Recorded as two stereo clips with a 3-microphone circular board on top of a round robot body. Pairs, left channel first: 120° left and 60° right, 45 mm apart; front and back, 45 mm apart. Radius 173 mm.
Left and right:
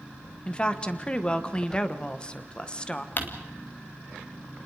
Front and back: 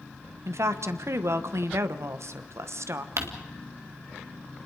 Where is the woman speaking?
170° right, 1.3 m.